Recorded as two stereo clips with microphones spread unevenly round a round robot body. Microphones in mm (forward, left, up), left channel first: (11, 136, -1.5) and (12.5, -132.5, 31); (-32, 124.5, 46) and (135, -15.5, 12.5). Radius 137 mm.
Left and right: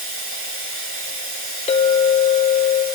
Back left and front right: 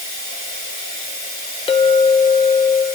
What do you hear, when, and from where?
0.0 s running water: 95° right, 4 m
1.7 s a clink: 80° left, 0.5 m